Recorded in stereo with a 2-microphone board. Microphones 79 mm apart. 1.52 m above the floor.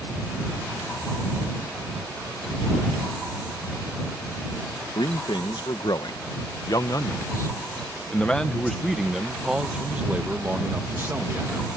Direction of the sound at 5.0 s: 75° left (ahead or behind).